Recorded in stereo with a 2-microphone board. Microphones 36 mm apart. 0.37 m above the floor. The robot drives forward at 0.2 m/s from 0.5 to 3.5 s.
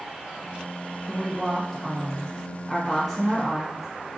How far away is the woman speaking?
About 1.1 m.